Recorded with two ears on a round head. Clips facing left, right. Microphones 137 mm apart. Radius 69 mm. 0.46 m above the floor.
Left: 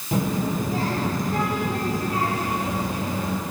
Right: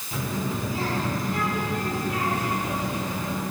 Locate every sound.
0.1 s a child speaking: 40° left (ahead or behind), 6 m; by 3.4 s 25° left (ahead or behind), 6.5 m